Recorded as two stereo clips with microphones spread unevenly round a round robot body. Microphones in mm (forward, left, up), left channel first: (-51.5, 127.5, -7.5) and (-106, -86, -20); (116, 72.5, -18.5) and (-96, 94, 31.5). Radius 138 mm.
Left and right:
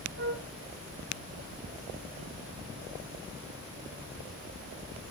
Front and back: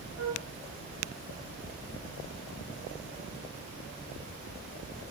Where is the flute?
135° right, 5 m.